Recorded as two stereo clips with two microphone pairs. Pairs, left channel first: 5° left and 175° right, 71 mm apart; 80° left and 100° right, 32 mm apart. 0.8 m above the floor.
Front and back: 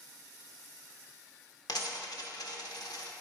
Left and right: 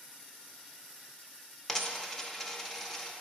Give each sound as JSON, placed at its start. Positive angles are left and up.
{"t": 1.7, "sound": "a dropped coin", "azimuth_deg": -5, "distance_m": 0.7}